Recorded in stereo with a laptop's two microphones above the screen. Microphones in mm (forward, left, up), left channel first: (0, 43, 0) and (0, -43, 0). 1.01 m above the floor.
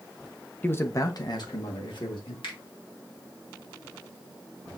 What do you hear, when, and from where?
0.6 s a man speaking: 20° left (ahead or behind), 0.5 m; by 2.3 s 70° left (ahead or behind), 1.4 m
2.4 s a finger snap: 70° left (ahead or behind), 1.6 m